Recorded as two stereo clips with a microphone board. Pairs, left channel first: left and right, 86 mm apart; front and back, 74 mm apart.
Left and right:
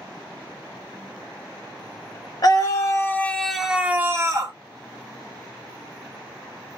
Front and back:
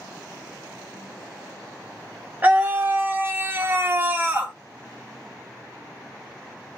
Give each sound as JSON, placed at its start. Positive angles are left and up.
{"t": 2.4, "sound": "a scream", "azimuth_deg": 120, "distance_m": 0.8}